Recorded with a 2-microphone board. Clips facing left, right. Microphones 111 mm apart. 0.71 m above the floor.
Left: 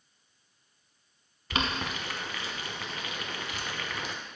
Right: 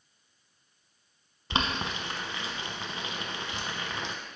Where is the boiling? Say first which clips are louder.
Right 1 dB; 25° right (ahead or behind), 0.8 m.